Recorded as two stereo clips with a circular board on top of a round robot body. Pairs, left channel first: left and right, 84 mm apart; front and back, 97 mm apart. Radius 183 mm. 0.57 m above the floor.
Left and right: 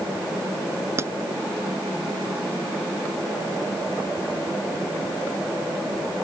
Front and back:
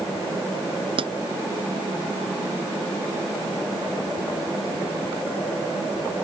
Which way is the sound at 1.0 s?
150° right.